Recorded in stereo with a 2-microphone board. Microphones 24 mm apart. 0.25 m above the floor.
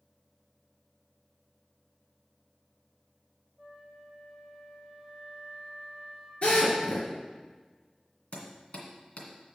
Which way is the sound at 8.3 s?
65° left (ahead or behind).